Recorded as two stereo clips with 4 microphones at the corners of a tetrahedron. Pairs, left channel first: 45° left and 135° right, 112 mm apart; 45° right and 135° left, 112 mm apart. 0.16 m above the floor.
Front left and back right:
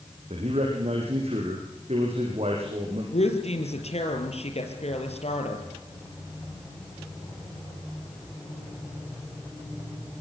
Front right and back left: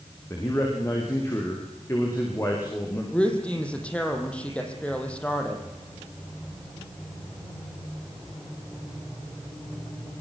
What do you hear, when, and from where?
0.3 s a man speaking: 110° right, 7 m
3.1 s a woman speaking: 35° left, 5.5 m